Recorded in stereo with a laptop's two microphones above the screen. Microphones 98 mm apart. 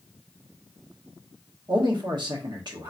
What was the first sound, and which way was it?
A man speaking, 50° right (ahead or behind).